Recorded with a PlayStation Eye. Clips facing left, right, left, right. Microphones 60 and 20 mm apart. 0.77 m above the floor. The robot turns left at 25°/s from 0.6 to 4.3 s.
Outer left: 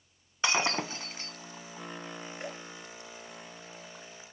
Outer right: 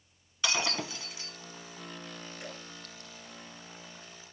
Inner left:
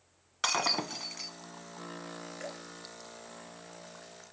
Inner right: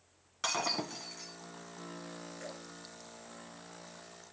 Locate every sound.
0.4 s breaking glass: 30° left (ahead or behind), 1.3 m; by 1.3 s 50° left (ahead or behind), 1.3 m
2.4 s dripping: 45° left (ahead or behind), 5 m; by 2.6 s 50° left (ahead or behind), 5 m